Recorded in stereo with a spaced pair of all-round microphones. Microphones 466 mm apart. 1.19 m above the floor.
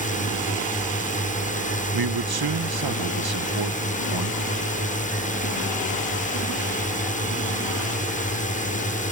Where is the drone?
15° left (ahead or behind).